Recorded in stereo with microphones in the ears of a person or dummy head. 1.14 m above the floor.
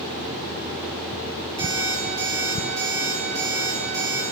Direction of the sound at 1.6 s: 20° right (ahead or behind).